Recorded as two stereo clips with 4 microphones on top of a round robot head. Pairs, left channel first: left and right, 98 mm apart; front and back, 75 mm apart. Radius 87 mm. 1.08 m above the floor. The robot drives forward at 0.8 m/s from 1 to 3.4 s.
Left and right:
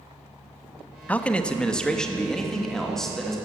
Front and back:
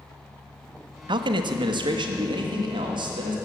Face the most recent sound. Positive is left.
turn(degrees=175)